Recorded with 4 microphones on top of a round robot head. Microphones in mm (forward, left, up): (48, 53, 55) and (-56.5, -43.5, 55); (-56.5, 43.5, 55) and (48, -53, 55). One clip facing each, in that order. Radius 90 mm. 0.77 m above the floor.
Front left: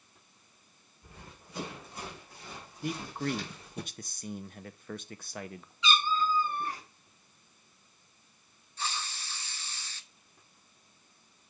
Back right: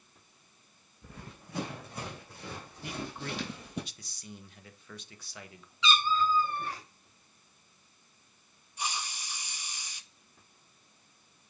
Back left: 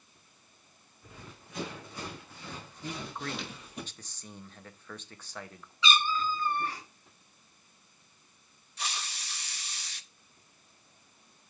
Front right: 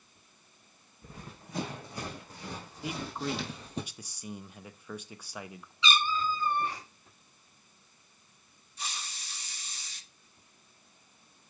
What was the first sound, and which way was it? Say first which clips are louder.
Running footsteps: back right 4 dB, front right 3 dB; 95° right.